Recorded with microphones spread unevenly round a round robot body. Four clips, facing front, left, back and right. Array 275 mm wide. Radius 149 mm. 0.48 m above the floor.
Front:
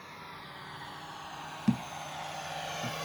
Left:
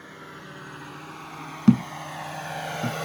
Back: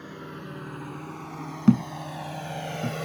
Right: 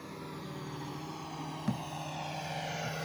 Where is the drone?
175° right; by 3.1 s 150° left.